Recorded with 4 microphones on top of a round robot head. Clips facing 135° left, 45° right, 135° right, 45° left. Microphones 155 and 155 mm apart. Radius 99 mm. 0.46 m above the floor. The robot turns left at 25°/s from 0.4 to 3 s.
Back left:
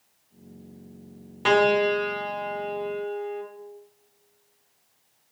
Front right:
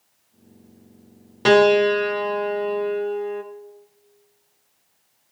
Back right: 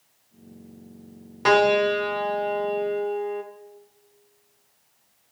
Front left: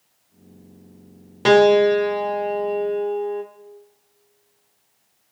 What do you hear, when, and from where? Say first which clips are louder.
1.4 s a piano: front right 6 dB, front left 6 dB; 10° right, 1.3 m; by 3.4 s 50° right, 1.3 m